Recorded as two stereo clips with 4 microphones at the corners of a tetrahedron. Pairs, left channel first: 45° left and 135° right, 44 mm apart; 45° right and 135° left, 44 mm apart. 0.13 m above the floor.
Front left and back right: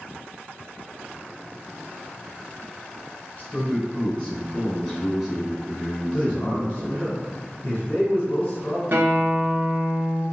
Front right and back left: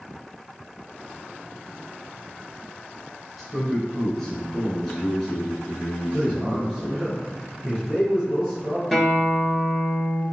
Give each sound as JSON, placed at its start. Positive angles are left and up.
{"t": 3.4, "sound": "a man speaking", "azimuth_deg": 45, "distance_m": 1.6}
{"t": 6.1, "sound": "a man speaking", "azimuth_deg": 75, "distance_m": 1.9}
{"t": 8.9, "sound": "a guitar", "azimuth_deg": -130, "distance_m": 1.3}